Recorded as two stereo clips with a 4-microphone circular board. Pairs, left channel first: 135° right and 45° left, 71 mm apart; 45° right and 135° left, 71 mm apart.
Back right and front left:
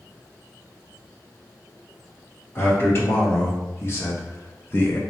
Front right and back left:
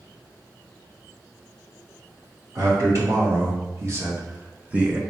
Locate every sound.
2.5 s a man speaking: 170° left, 1.7 m; by 5.0 s 155° right, 0.6 m